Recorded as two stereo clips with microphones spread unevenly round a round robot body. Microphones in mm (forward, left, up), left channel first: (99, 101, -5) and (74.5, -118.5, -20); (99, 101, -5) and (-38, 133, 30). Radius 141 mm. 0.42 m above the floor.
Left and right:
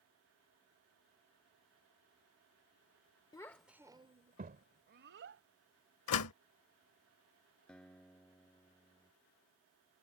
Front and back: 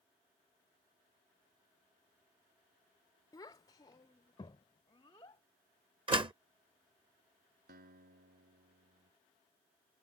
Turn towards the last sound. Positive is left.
turn(degrees=170)